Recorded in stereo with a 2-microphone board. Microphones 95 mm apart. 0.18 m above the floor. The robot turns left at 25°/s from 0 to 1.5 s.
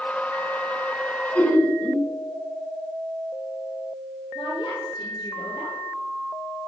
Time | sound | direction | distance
1.4 | laughter | 20° left (ahead or behind) | 1.4 m
4.3 | a woman speaking | 65° left (ahead or behind) | 4 m